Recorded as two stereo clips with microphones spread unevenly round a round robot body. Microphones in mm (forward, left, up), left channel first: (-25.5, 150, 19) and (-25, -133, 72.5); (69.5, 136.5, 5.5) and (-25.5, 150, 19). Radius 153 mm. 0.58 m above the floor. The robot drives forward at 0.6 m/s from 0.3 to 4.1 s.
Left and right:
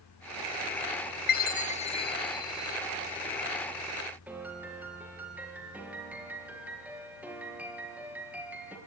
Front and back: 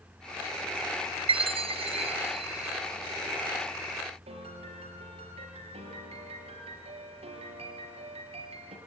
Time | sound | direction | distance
1.3 | a chime | 140° left | 0.5 m
4.3 | a piano | 175° right | 4.5 m